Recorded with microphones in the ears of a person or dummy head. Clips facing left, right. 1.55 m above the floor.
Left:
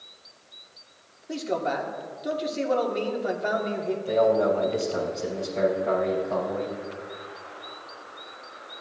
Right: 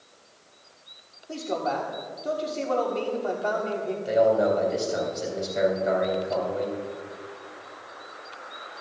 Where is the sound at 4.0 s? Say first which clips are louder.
Right 1 dB; 20° right (ahead or behind), 3.5 m.